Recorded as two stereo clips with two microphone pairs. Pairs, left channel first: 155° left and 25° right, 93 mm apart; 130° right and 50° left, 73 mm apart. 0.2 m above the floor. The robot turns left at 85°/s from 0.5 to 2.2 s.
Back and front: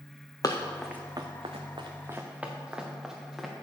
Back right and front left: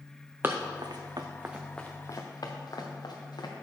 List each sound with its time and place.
0.4 s running footsteps: 110° left, 0.9 m; by 3.5 s 115° right, 1.8 m